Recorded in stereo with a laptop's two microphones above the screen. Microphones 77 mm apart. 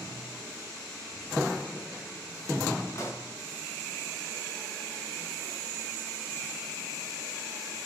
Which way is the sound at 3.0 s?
35° left (ahead or behind).